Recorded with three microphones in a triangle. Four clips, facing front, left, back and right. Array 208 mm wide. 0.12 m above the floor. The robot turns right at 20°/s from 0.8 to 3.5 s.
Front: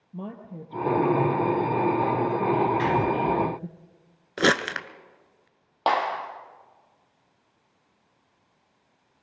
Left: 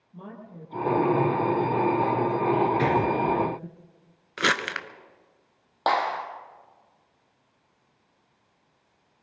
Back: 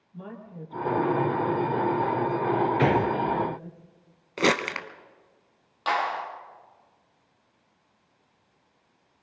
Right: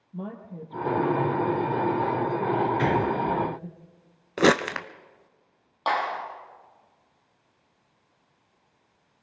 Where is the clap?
40° left, 3 m.